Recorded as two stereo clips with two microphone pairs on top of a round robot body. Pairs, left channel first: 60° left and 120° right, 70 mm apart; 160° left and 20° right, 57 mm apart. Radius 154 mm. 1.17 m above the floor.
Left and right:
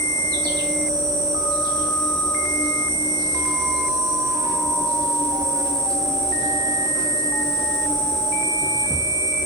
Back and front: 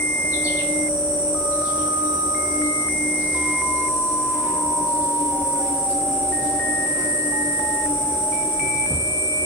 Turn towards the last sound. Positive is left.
turn(degrees=-80)